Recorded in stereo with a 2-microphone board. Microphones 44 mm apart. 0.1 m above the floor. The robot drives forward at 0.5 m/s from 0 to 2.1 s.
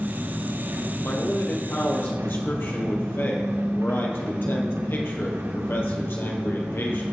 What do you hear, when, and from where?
0.0 s an engine running: 70° right (ahead or behind), 4 m; by 7.1 s 85° right, 4 m
1.0 s a man speaking: 60° left (ahead or behind), 3 m; by 7.0 s 55° left (ahead or behind), 3 m